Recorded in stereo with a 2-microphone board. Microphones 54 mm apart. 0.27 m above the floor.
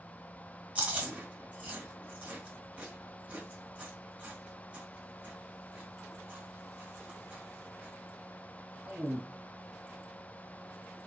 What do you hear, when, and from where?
0.8 s chewing: 25° right (ahead or behind), 1.7 m